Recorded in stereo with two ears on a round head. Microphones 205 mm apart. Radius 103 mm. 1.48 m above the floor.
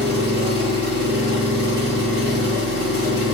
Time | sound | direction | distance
0.0 | an engine running | 50° right (ahead or behind) | 1.5 m